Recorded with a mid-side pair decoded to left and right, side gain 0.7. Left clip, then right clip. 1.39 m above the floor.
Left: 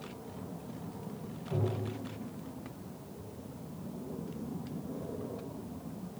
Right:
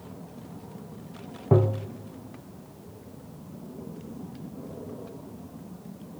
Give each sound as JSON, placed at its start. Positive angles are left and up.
{"t": 1.5, "sound": "tapping", "azimuth_deg": -60, "distance_m": 1.1}